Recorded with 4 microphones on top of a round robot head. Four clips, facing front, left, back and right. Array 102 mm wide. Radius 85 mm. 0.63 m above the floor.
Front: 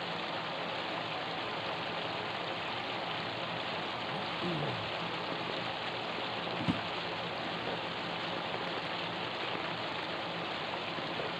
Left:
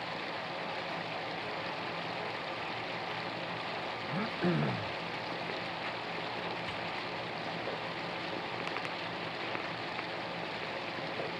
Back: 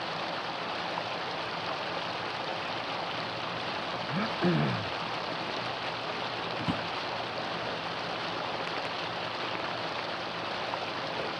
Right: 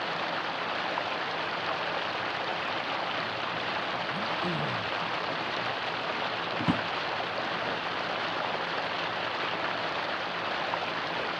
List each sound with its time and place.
0.0 s running water: 105° right
4.1 s throat clearing: 160° left
6.6 s a drawer: 80° right